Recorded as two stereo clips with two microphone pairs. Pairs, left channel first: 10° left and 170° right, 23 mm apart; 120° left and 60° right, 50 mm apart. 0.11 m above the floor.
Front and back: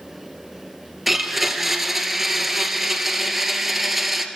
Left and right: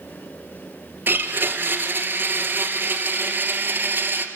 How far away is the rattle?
I don't hear a rattle.